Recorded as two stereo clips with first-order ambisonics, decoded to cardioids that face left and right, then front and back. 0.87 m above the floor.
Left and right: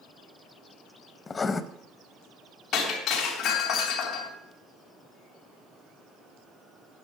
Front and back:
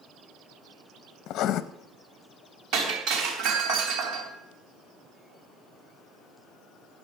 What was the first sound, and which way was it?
Writing, 25° left.